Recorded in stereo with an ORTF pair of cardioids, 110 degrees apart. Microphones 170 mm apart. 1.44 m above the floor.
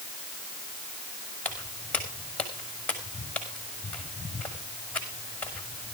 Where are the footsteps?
5° left, 5.5 m.